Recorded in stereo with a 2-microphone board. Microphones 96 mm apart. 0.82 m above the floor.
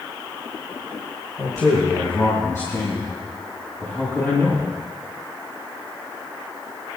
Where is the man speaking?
40° left (ahead or behind), 4.5 m; by 4.7 s 20° left (ahead or behind), 6 m.